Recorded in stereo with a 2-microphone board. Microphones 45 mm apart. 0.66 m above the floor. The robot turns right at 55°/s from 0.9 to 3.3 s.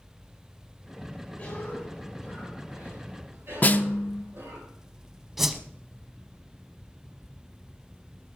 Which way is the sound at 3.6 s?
40° left (ahead or behind).